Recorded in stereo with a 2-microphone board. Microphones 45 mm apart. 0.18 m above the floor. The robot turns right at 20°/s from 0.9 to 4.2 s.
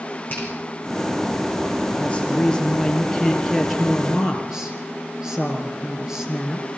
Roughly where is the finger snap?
Left.